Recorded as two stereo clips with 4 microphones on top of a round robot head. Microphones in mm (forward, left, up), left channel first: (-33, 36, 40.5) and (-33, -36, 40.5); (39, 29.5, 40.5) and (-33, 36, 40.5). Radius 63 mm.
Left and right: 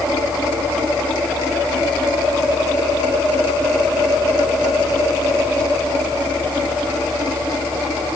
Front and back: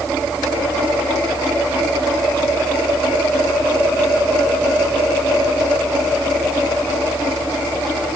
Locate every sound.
Only background noise.